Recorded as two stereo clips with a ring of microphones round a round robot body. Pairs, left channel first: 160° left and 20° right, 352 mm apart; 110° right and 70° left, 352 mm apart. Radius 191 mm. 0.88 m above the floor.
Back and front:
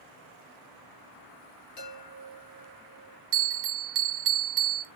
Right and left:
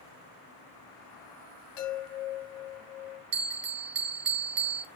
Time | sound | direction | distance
1.8 | a chime | 155° right | 5.5 m
3.3 | a bell | 35° left | 1.9 m